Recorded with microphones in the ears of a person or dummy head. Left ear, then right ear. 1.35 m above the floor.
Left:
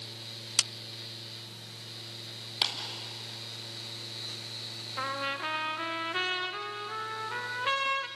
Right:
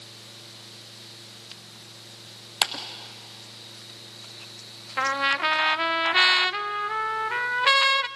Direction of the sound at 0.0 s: 55° left (ahead or behind).